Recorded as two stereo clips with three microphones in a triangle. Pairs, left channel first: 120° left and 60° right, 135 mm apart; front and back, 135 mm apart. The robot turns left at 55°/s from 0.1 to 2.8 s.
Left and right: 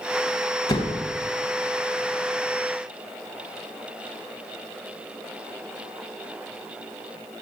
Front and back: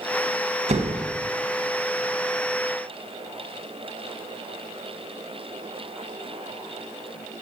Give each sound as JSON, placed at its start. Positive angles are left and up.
{"t": 0.7, "sound": "a door slam", "azimuth_deg": 170, "distance_m": 1.1}